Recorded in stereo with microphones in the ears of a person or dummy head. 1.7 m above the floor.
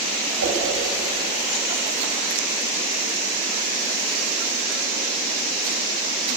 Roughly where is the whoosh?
Right.